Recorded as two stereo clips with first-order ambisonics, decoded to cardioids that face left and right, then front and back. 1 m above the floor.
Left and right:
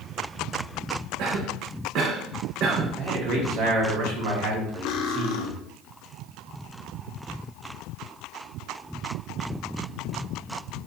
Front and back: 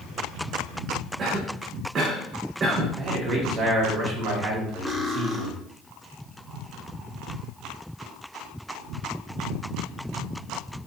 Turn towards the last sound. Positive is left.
turn(degrees=95)